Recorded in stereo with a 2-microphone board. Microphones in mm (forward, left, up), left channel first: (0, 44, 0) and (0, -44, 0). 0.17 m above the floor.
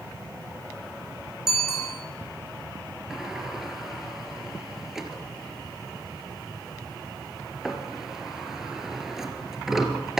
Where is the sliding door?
5° right (ahead or behind), 2.5 m.